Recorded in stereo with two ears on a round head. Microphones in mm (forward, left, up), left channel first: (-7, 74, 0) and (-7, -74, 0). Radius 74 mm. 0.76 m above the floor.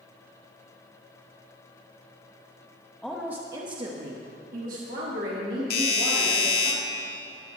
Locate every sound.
3.0 s a woman speaking: 5° left (ahead or behind), 0.9 m; by 6.7 s 70° right (ahead or behind), 3 m
5.7 s a doorbell: 65° left (ahead or behind), 1.9 m